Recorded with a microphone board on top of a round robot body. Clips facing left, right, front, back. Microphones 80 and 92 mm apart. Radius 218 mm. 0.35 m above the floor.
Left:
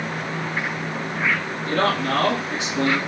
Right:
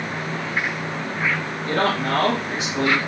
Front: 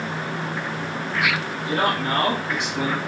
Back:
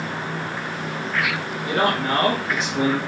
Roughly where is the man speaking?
Behind right.